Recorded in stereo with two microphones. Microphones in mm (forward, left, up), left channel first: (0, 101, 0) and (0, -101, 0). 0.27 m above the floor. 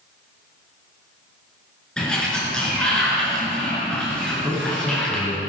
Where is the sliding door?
5° left (ahead or behind), 4.5 m.